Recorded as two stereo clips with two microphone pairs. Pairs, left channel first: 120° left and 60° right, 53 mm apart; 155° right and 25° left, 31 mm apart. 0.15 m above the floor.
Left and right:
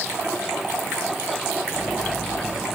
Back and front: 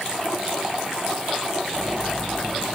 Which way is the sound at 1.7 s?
105° left.